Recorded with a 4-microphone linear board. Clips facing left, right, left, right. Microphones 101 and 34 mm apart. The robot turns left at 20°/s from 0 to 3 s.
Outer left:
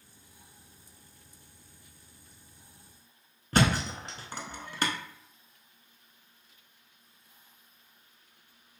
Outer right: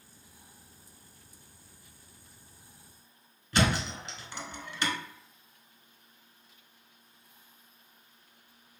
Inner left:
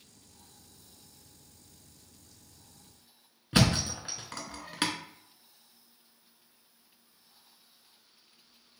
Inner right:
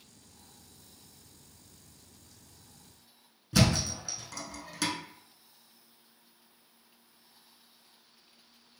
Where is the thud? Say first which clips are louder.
Outer left 2 dB, inner left 1 dB; 45° left (ahead or behind), 0.5 m.